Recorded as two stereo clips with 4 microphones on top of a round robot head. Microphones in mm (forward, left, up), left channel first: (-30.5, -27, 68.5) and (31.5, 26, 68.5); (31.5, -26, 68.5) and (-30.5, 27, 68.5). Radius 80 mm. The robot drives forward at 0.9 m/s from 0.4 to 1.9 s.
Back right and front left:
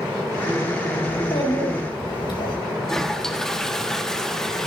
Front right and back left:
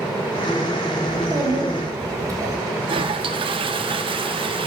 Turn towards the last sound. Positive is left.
turn(degrees=135)